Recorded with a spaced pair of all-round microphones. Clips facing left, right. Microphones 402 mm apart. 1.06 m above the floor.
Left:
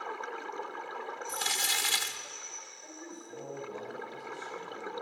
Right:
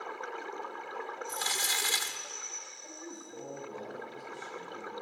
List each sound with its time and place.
1.3 s crumpling: 45° left (ahead or behind), 0.9 m
2.8 s a man speaking: 50° left (ahead or behind), 6 m